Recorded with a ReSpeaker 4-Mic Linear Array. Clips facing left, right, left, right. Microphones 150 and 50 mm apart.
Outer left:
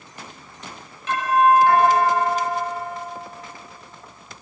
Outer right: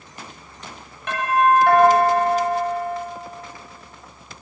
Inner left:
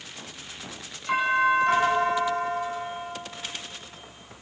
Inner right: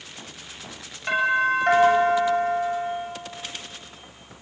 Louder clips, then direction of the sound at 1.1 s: Outer left 1 dB, inner right 1 dB; 55° right (ahead or behind).